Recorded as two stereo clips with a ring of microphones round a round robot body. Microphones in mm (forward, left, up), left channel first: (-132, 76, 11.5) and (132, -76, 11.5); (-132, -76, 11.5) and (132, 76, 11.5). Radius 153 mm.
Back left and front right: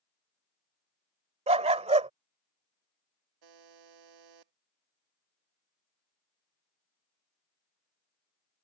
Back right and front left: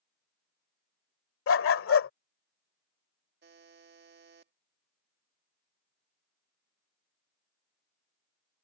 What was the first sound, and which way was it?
A dog barking, 100° right.